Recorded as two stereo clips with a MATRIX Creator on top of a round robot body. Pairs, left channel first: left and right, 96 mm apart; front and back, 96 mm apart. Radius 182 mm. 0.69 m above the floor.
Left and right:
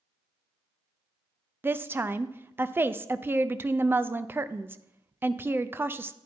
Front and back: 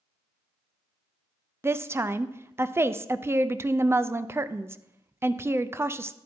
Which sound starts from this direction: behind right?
A woman speaking, at 1.6 s.